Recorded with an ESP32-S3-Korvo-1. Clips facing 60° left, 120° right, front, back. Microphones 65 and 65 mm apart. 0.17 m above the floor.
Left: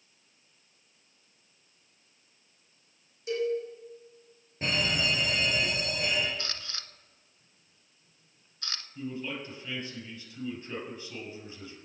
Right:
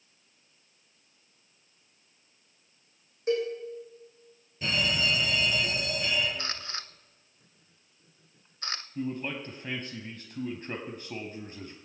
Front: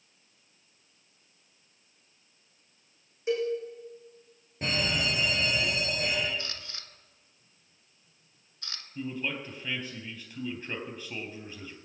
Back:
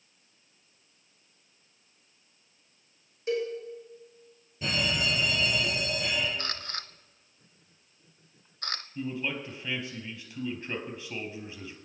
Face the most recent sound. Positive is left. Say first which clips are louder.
# right 3 dB, even
turn(degrees=-85)